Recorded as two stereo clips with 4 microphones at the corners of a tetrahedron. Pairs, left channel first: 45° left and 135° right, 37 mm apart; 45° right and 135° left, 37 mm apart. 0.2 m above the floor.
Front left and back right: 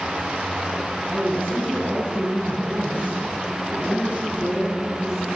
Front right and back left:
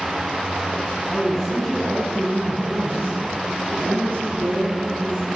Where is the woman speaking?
135° right, 3.5 m; by 5.3 s 135° left, 5 m.